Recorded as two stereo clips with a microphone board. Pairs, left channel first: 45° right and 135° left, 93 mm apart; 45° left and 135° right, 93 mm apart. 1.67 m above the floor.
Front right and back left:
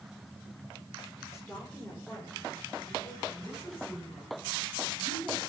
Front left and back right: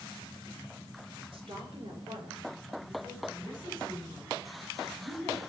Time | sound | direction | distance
1.3 | a woman speaking | 110° right | 5.5 m